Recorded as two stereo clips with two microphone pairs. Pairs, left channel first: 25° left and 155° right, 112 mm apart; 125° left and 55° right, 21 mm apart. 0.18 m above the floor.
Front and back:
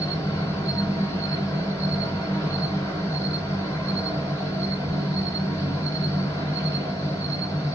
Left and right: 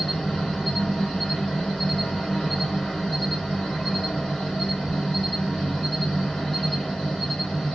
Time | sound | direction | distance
0.0 | an insect | 80° left | 3.5 m